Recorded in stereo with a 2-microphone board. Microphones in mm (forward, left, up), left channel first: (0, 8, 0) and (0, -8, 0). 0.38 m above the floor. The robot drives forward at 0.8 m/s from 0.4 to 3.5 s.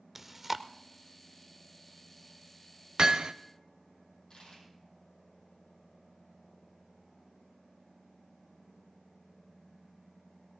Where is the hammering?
45° right (ahead or behind), 0.6 m; by 3.3 s 60° right (ahead or behind), 0.5 m.